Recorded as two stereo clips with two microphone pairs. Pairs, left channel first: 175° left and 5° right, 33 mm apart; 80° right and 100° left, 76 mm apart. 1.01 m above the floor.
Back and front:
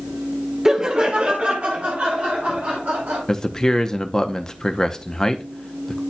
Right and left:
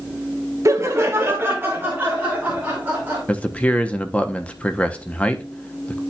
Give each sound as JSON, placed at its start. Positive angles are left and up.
{"t": 0.7, "sound": "laughter", "azimuth_deg": 65, "distance_m": 0.8}
{"t": 3.3, "sound": "a man speaking", "azimuth_deg": -130, "distance_m": 0.6}